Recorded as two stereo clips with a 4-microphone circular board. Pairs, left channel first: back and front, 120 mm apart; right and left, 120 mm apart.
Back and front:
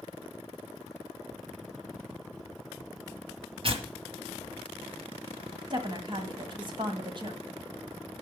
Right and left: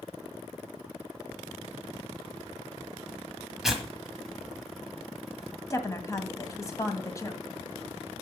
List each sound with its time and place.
3.6 s tearing paper: 5° left, 1.7 m
5.7 s a woman speaking: 35° right, 1.6 m